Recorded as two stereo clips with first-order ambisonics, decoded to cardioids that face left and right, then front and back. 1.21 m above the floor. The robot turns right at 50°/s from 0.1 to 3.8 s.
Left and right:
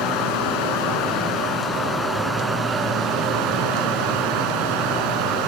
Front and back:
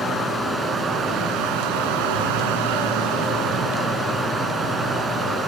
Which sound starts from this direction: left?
Running water, at 0.0 s.